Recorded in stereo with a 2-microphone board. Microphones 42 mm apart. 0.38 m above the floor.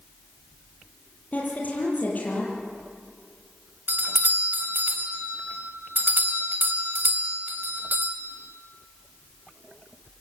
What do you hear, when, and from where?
1.3 s a woman speaking: 35° left (ahead or behind), 10 m
3.9 s a doorbell: 50° right (ahead or behind), 3 m